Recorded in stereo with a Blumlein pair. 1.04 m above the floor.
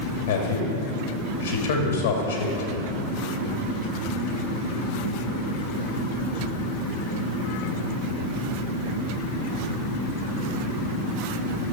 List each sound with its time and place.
0.3 s a man speaking: 60° left, 2.0 m